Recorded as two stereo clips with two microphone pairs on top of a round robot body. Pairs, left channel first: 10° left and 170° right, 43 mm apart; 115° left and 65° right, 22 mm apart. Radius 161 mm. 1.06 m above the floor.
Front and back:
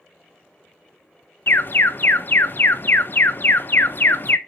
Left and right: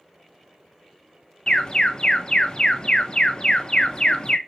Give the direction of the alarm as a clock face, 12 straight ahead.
10 o'clock.